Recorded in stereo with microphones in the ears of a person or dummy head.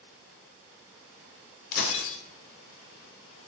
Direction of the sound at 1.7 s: 50° left (ahead or behind).